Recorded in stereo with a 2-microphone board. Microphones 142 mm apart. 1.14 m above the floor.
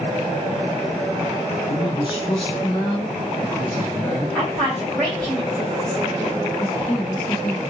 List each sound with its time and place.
1.7 s a man speaking: 40° left (ahead or behind), 0.8 m; by 4.2 s 15° left (ahead or behind), 2.5 m
4.3 s a woman speaking: 5° left (ahead or behind), 2.5 m
6.6 s a woman speaking: 60° left (ahead or behind), 1.2 m